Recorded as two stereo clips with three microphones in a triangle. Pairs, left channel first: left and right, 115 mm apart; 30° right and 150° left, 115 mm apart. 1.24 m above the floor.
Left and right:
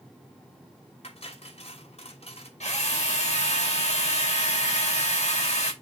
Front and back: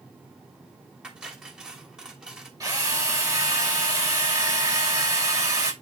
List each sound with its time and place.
1.0 s cutlery clinking: 65° left, 3 m
2.6 s a drill: 95° left, 5.5 m